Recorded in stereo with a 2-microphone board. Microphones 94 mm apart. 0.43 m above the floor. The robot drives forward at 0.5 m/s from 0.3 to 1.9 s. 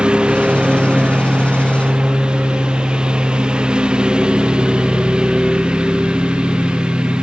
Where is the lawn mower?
10° right (ahead or behind).